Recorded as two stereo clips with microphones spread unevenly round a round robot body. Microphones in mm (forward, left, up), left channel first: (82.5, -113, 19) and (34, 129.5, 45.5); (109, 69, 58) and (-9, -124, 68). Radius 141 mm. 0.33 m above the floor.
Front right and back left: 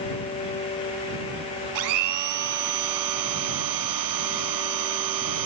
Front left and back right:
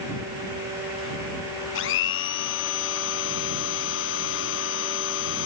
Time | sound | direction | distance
1.8 | a blender | 105° left | ?